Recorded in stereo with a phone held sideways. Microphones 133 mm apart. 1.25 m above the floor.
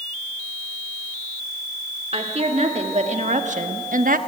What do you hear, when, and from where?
2.1 s a woman speaking: 45° right (ahead or behind), 3 m; by 4.2 s 80° right, 1.0 m